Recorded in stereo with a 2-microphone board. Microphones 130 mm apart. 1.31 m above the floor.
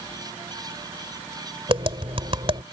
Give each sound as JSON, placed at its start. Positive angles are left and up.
{"t": 1.7, "sound": "tapping", "side_deg": -45}